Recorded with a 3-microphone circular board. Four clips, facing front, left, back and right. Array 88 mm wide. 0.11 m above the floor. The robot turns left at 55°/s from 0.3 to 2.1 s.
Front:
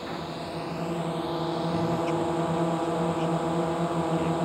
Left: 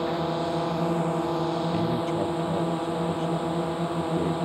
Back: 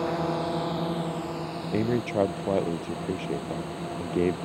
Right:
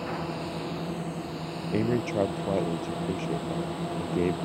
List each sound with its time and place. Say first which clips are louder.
0.0 s a drone: left 6 dB, back 7 dB; 130° left; by 4.5 s 35° left
1.7 s a man speaking: left 1 dB, back 4 dB; 140° right; by 4.4 s 160° right